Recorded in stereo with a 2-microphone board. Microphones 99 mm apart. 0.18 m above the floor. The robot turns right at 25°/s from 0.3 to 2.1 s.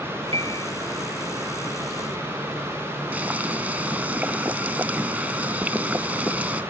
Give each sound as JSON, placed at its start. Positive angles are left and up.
{"t": 0.3, "sound": "a piano", "side_deg": -65}
{"t": 3.1, "sound": "boiling", "side_deg": -15}